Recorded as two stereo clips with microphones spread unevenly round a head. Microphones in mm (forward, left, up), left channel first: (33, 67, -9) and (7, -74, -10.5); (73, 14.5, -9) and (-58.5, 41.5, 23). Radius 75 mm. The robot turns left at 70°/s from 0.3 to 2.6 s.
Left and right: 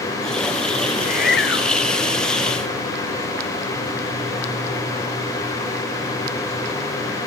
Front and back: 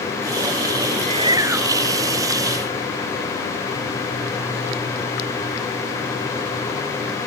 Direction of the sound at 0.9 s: 140° left.